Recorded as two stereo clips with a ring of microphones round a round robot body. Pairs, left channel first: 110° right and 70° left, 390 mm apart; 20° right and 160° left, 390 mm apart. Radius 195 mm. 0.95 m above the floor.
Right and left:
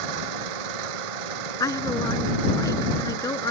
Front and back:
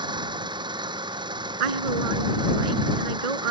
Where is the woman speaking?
165° left.